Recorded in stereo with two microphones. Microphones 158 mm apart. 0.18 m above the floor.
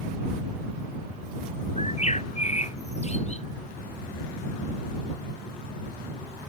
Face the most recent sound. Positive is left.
turn(degrees=45)  # may be behind; listen again after turning